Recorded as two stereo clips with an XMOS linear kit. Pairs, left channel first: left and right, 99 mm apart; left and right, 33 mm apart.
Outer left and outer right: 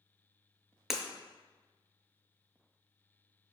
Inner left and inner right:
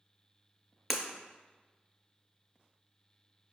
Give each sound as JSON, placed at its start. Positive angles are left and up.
{"t": 0.9, "sound": "breaking glass", "side_deg": -5, "distance_m": 0.7}